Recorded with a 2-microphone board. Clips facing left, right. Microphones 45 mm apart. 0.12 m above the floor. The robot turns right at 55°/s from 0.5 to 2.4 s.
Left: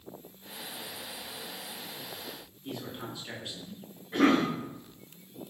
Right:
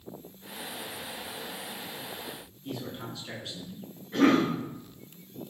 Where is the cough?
15° left (ahead or behind), 1.4 m.